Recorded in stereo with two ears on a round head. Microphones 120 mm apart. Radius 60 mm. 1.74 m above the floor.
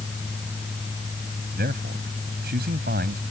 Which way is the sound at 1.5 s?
80° right.